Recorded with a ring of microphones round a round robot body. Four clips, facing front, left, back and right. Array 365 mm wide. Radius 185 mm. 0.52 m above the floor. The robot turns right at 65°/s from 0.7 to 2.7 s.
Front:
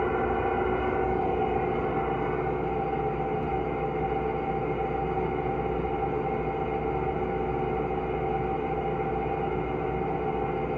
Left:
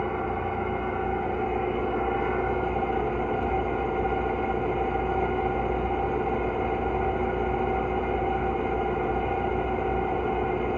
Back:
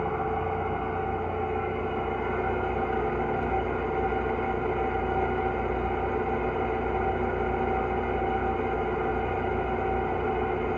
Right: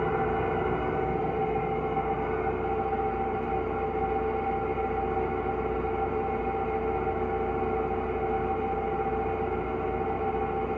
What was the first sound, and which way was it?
An engine running, 10° right.